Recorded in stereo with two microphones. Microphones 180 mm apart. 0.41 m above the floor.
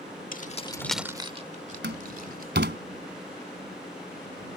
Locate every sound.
0.3 s keys jangling: 50° left (ahead or behind); by 2.5 s 55° right (ahead or behind)
1.8 s a door slam: 75° right (ahead or behind)